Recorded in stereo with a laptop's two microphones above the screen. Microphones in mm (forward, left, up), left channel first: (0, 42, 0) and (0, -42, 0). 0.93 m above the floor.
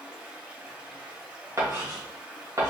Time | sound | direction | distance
0.0 | running water | 15° right (ahead or behind) | 1.7 m
1.6 | writing | 40° right (ahead or behind) | 1.5 m